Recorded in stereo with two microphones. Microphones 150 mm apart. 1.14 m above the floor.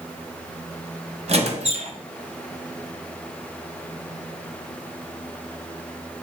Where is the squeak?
50° right (ahead or behind), 0.8 m.